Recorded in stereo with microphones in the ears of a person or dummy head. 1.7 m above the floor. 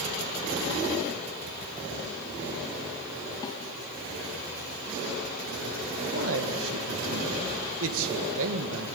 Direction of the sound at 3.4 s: 20° left (ahead or behind).